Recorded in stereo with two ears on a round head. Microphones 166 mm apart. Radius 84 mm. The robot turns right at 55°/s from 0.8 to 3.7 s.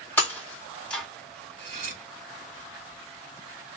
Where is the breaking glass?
10° left (ahead or behind), 1.6 m; by 1.1 s centre (ahead or behind), 1.6 m.